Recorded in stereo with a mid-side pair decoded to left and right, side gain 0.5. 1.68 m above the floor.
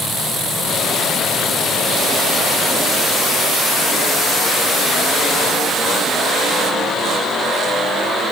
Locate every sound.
Only background noise.